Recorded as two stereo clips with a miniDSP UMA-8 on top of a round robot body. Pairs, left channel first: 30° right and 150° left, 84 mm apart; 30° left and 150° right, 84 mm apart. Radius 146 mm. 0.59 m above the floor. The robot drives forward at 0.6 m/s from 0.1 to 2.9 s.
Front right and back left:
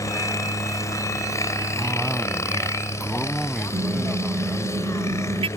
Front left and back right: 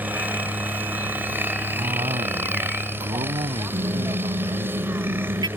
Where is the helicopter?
80° right; by 5.6 s 85° right.